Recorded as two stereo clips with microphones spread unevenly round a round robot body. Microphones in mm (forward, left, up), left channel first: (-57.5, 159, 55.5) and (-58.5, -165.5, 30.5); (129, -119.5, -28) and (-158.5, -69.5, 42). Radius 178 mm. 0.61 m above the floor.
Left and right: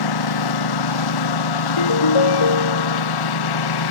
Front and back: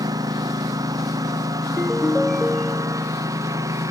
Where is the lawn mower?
90° left.